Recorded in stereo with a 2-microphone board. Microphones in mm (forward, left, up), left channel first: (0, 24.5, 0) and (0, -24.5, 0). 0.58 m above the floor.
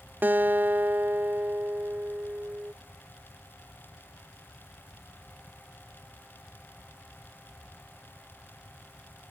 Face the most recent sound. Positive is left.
turn(degrees=-40)  # may be behind; listen again after turning